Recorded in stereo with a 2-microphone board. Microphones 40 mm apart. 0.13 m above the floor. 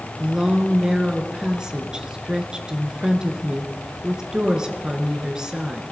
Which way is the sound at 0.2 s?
20° right (ahead or behind).